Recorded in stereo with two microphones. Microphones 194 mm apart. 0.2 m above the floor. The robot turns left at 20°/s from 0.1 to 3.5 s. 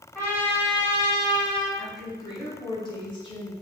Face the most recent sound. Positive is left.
turn(degrees=25)  # may be behind; listen again after turning